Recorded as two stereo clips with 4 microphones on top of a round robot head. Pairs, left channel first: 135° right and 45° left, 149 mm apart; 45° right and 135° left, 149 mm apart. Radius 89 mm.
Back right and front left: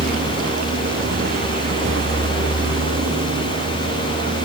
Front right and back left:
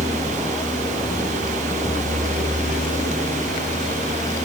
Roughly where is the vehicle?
Ahead.